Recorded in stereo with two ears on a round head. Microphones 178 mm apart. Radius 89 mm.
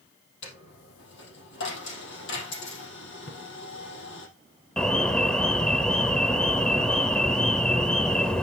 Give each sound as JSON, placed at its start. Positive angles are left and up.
{"t": 0.4, "sound": "a dropped coin", "side_deg": 60, "distance_m": 3.5}
{"t": 3.3, "sound": "a splash", "side_deg": 55, "distance_m": 1.7}
{"t": 4.8, "sound": "an alarm", "side_deg": 5, "distance_m": 0.9}